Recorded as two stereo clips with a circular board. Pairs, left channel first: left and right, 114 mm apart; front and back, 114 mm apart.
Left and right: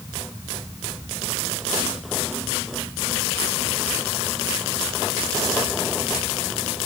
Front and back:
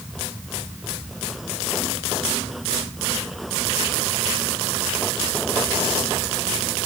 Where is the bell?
No bell in this recording.